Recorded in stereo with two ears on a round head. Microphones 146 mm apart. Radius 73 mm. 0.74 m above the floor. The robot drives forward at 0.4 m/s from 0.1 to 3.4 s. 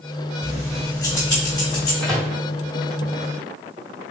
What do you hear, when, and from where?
0.4 s keys jangling: 15° left (ahead or behind), 1.8 m; by 1.9 s 25° left (ahead or behind), 1.2 m
2.0 s a microwave: centre (ahead or behind), 1.8 m